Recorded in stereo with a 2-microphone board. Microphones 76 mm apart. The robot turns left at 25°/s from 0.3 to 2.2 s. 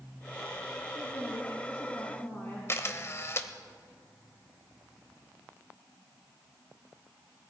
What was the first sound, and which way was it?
A woman speaking, 60° left.